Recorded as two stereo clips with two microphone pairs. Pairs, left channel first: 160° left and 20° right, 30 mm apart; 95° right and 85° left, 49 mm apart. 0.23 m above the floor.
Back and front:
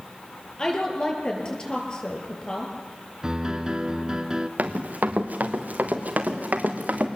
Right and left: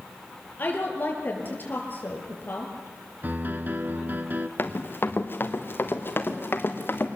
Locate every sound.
0.6 s a woman speaking: 145° right, 5.5 m
3.2 s a piano: 35° left, 1.0 m
4.6 s running footsteps: 50° right, 2.5 m